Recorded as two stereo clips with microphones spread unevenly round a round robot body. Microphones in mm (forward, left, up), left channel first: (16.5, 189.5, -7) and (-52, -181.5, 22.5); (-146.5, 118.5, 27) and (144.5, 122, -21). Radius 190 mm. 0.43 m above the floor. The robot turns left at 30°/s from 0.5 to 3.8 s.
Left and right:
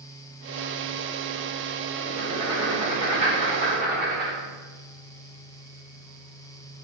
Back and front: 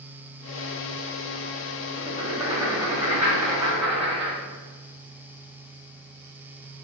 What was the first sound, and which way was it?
Writing, 5° right.